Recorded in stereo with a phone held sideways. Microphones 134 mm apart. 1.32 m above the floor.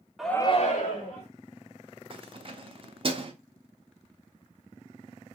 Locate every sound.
0.2 s a shout: centre (ahead or behind), 0.6 m; by 1.3 s 80° left, 1.1 m
2.1 s keys jangling: 45° right (ahead or behind), 0.6 m